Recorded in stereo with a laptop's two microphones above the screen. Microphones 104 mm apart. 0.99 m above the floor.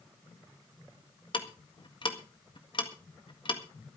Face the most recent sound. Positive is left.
turn(degrees=50)  # may be behind; listen again after turning